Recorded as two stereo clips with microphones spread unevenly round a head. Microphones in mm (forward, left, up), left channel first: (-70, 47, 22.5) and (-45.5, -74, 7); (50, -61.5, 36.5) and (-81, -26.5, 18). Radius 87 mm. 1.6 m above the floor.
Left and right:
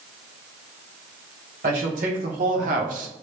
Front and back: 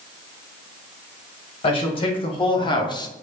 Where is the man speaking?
60° right, 1.5 m; by 3.1 s 75° right, 0.7 m.